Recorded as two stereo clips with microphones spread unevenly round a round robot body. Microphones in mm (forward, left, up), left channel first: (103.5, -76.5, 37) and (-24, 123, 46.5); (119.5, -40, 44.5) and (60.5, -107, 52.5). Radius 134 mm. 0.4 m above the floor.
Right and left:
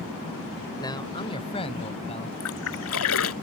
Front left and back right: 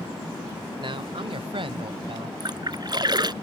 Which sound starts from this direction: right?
A splash, at 2.4 s.